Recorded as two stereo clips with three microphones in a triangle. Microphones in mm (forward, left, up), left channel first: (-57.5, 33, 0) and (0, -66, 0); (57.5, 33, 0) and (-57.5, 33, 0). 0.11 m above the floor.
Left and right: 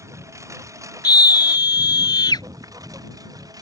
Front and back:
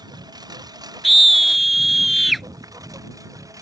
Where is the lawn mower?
125° right; by 3.6 s 120° right.